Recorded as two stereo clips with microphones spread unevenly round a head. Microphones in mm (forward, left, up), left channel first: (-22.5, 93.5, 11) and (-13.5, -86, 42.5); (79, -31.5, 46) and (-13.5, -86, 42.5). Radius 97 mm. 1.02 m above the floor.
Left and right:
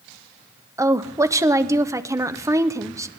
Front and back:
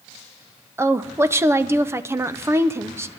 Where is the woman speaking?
165° right, 0.6 m.